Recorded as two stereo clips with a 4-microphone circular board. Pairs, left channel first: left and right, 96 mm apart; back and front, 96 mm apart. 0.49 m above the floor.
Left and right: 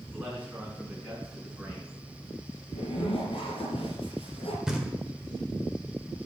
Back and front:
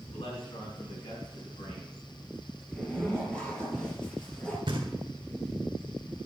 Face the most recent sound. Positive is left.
turn(degrees=-5)